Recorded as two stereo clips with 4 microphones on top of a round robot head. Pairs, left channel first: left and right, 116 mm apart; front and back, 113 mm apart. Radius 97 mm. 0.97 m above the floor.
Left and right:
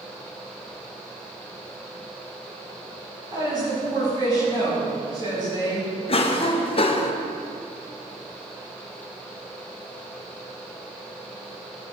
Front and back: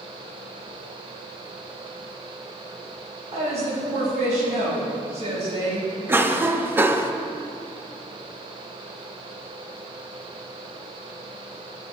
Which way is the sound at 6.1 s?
110° left.